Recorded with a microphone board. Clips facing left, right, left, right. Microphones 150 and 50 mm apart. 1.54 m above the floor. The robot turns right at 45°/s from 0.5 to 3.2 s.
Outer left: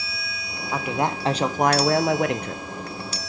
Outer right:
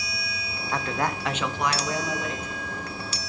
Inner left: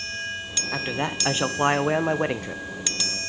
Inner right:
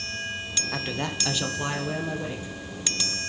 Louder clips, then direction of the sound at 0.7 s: Outer left 3 dB, inner left 4 dB; 10° left.